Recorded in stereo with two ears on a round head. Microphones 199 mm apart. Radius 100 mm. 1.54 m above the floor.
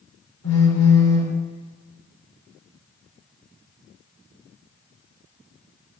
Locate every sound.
0.4 s a phone buzzing: 75° left (ahead or behind), 3.5 m